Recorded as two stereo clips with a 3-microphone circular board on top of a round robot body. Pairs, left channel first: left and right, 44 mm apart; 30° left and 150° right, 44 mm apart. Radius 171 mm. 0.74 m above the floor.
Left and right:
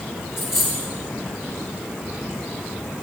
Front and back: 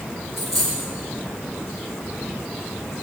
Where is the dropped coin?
125° left, 0.5 m.